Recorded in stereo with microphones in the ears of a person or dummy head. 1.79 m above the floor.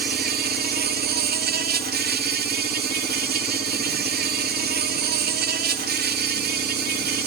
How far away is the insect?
About 0.8 m.